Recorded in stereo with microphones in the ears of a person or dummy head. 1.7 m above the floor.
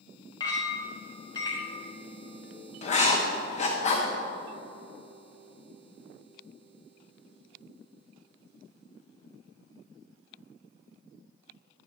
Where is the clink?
25° left (ahead or behind), 1.3 m.